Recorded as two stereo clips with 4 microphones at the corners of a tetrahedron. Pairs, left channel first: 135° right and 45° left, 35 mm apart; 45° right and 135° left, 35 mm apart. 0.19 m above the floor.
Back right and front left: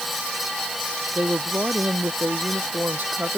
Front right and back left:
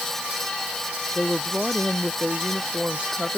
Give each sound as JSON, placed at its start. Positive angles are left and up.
{"t": 1.1, "sound": "a woman speaking", "azimuth_deg": 70}